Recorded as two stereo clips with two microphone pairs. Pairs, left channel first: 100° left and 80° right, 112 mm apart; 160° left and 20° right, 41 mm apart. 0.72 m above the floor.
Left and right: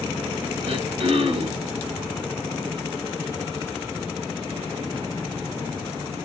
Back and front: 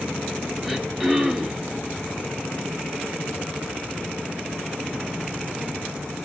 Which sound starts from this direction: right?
Throat clearing, at 0.6 s.